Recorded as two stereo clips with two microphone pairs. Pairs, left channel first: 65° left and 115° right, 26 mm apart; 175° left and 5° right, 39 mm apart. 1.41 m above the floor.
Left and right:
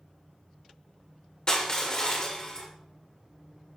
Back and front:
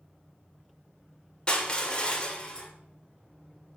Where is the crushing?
115° left, 1.7 m.